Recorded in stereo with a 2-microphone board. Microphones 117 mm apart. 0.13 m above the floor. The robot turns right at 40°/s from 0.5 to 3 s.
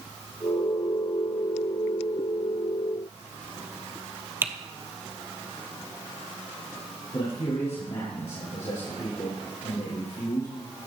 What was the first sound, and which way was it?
Typing on a keyboard, 20° right (ahead or behind).